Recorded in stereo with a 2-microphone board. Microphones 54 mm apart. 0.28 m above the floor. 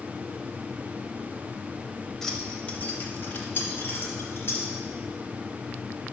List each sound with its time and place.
2.2 s keys jangling: 10° left (ahead or behind), 0.7 m; by 4.7 s 55° left (ahead or behind), 1.7 m